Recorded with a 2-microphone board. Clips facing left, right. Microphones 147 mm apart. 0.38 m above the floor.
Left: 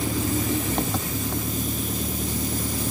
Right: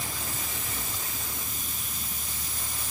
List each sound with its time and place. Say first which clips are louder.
0.0 s an engine running: left 14 dB; 70° left (ahead or behind)